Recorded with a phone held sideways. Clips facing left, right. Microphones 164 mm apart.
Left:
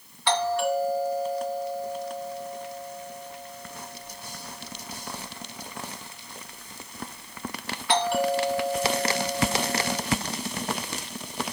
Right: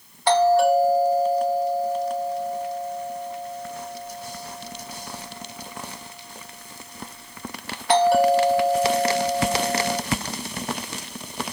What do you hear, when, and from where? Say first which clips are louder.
0.3 s a doorbell: right 8 dB; 40° right (ahead or behind), 2 m